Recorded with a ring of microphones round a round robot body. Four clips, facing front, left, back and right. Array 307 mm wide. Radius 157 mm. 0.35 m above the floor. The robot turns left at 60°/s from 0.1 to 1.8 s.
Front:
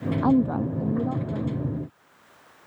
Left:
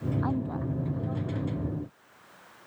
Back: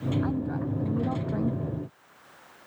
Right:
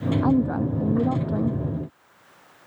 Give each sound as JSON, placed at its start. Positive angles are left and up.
{"t": 0.2, "sound": "a woman speaking", "azimuth_deg": -30}